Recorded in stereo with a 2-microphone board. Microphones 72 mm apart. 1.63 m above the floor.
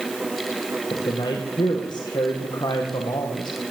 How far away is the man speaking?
About 1.7 m.